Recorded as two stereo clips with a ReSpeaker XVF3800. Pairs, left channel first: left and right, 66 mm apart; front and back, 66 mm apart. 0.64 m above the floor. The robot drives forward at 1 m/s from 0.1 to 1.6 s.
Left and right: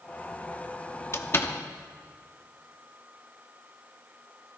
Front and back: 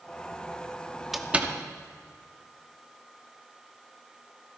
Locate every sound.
1.1 s a door slam: 95° left, 0.6 m; by 1.5 s 135° left, 0.8 m